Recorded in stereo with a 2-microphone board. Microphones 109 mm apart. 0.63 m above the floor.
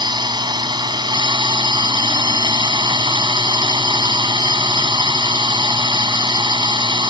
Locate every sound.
0.0 s a drone: 45° right (ahead or behind)